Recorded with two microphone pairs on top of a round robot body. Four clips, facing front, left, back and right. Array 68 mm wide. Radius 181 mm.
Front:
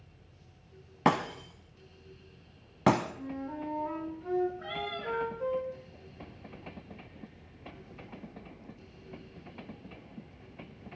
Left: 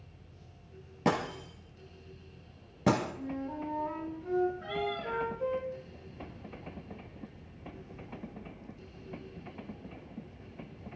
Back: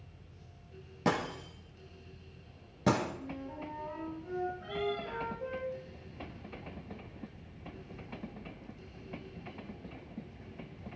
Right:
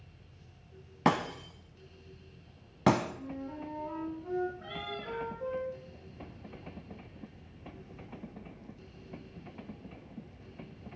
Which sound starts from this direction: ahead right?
Breaking glass, at 1.1 s.